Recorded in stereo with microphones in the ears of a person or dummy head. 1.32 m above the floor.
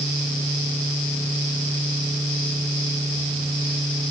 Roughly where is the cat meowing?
No cat meowing in this recording.